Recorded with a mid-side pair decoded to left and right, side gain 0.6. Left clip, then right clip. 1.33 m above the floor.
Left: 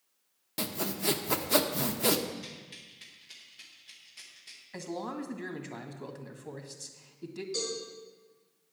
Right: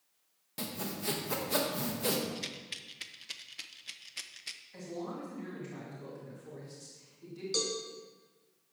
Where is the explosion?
No explosion in this recording.